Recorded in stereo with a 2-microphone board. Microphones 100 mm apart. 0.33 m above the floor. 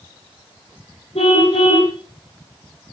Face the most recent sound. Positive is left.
turn(degrees=80)